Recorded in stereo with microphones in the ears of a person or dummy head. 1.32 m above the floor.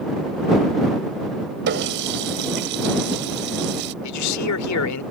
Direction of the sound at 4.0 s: 90° left.